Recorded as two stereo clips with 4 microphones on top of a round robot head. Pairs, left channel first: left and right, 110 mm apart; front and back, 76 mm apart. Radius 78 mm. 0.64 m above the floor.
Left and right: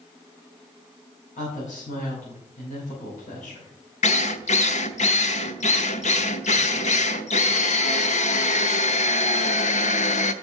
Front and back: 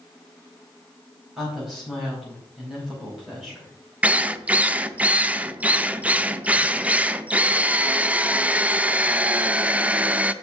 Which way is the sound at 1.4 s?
95° left.